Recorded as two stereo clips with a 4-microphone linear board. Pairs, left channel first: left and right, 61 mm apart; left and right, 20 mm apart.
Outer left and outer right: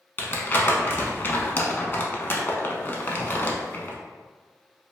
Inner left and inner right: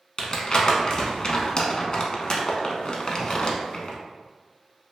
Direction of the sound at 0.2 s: 35° left (ahead or behind).